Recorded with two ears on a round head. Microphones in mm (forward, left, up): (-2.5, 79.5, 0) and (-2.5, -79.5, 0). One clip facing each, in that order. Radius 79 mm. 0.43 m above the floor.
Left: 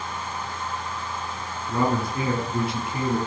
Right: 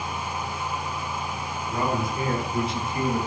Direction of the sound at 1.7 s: 55° left (ahead or behind).